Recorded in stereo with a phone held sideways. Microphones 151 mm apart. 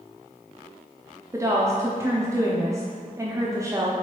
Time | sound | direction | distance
1.3 | a woman speaking | 20° right (ahead or behind) | 0.5 m